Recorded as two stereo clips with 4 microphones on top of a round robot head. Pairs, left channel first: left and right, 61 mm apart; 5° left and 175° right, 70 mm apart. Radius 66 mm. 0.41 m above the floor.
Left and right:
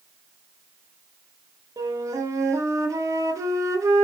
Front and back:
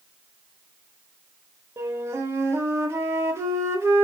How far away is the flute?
About 0.7 m.